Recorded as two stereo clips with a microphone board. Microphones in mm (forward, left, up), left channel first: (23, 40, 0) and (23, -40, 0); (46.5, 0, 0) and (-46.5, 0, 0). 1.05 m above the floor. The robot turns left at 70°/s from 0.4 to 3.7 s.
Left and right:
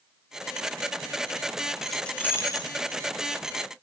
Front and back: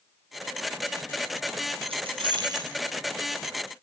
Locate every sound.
1.8 s keys jangling: 175° right, 4 m; by 2.8 s 120° left, 4 m